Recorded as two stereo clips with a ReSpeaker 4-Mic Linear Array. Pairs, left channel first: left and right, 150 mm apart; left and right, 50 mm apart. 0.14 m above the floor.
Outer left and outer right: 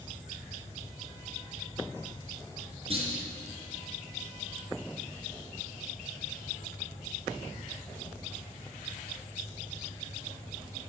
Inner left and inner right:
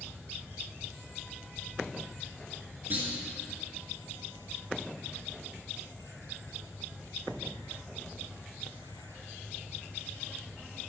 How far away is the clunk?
About 2.5 m.